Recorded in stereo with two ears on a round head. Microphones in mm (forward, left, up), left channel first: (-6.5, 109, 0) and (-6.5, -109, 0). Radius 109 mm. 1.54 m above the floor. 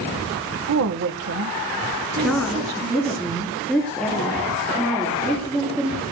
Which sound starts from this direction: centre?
A woman speaking, at 2.2 s.